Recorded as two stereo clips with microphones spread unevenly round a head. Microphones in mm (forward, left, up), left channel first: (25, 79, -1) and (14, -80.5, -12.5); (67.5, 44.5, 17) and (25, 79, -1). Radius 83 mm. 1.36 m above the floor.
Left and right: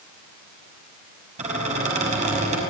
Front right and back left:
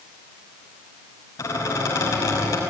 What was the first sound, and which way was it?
A squeak, 45° right.